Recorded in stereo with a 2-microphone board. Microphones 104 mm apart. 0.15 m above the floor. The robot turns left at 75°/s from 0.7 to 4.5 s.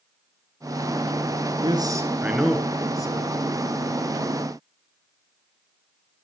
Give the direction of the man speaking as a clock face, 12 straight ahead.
4 o'clock.